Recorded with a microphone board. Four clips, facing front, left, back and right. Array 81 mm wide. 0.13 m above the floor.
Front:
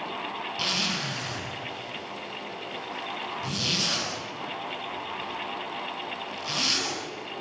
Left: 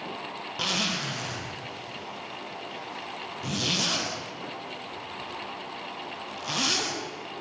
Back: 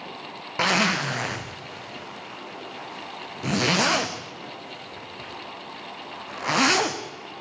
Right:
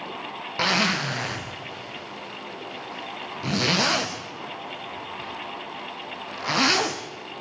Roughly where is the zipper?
Behind right.